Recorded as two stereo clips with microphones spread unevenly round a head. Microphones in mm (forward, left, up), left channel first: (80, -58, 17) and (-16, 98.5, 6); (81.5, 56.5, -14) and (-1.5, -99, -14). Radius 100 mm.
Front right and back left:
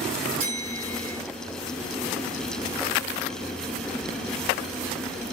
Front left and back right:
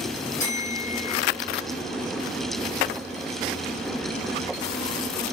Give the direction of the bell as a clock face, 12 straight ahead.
8 o'clock.